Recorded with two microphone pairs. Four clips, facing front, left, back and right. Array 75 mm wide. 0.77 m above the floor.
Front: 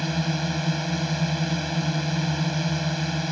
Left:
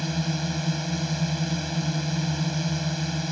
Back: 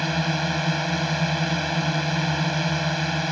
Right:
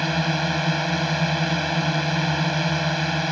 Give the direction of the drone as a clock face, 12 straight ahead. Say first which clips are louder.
Right 6 dB, back 2 dB; 4 o'clock.